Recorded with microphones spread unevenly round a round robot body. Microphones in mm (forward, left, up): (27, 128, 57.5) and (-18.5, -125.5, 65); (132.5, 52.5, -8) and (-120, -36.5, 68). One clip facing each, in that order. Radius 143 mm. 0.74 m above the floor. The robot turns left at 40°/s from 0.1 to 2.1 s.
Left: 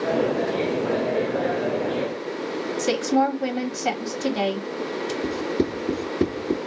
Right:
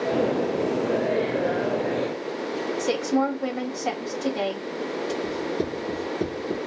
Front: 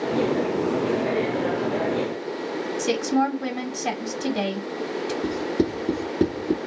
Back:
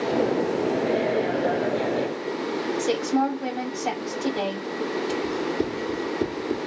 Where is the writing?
25° left, 2.5 m.